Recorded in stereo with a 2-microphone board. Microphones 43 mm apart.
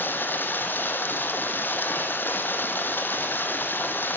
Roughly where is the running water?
Left.